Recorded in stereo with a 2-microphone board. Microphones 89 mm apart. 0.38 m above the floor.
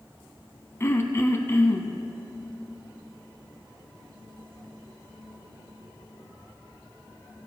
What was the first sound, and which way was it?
Throat clearing, 30° left (ahead or behind).